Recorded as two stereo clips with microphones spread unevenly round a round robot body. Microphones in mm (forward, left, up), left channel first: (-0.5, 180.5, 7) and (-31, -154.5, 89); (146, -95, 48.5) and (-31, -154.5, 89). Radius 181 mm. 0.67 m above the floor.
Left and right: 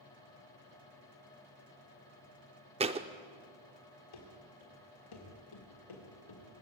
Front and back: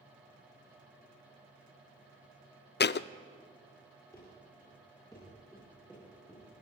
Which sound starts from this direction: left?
Running footsteps, at 4.1 s.